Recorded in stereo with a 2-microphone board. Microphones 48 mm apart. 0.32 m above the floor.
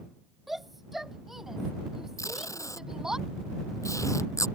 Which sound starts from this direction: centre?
A shout, at 0.5 s.